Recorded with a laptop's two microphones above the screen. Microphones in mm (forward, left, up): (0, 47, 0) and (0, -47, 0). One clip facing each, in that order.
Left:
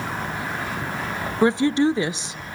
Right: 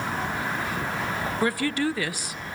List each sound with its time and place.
1.4 s a woman speaking: 25° left (ahead or behind), 0.8 m